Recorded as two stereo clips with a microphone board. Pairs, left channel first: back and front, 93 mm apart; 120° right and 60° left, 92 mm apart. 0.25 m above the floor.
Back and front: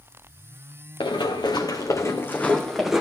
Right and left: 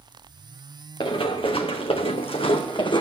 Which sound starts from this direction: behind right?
Running footsteps, at 1.0 s.